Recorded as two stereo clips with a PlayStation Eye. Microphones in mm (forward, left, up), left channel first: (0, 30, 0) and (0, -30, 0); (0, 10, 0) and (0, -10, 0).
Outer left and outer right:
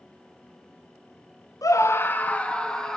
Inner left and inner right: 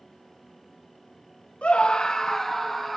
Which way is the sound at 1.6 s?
70° left (ahead or behind).